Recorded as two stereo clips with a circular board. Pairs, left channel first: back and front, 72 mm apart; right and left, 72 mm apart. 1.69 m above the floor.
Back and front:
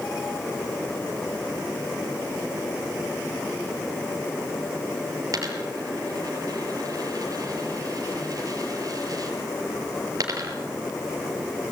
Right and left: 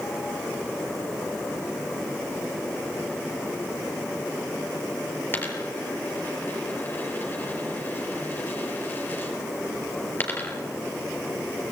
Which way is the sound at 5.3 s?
30° right.